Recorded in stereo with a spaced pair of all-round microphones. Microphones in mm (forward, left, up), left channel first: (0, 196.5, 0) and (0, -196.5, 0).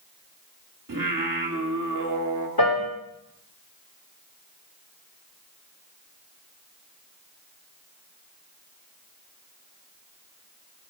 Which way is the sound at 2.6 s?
65° left (ahead or behind).